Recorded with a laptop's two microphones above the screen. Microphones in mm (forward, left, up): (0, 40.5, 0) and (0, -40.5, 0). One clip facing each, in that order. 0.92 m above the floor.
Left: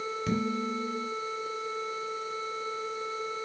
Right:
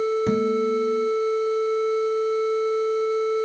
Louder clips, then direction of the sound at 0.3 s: Right 9 dB; 35° right (ahead or behind).